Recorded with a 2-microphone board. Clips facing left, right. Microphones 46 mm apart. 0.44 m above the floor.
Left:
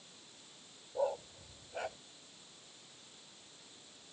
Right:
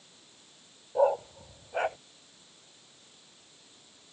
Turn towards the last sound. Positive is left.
turn(degrees=-50)  # may be behind; listen again after turning